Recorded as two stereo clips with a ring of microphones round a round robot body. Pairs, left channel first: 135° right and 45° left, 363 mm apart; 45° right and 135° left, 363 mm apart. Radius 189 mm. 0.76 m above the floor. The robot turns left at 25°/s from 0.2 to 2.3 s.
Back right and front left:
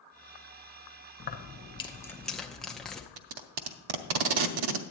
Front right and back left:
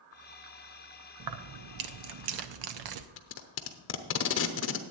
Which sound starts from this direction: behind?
Keys jangling, at 1.2 s.